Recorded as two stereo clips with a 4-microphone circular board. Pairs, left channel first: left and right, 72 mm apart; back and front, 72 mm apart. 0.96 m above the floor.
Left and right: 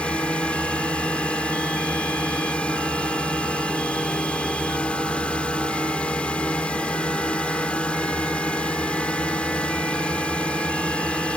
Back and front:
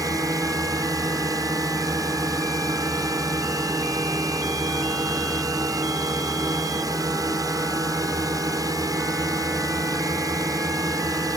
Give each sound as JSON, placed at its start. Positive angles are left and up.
{"t": 0.0, "sound": "a drone", "azimuth_deg": 20}